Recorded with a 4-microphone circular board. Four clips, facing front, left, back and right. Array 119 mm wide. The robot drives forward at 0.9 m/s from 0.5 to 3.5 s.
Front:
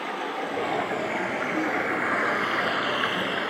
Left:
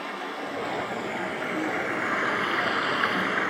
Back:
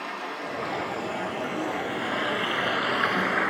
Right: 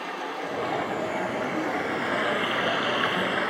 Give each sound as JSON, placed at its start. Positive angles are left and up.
{"t": 0.0, "sound": "running water", "azimuth_deg": 5, "distance_m": 2.5}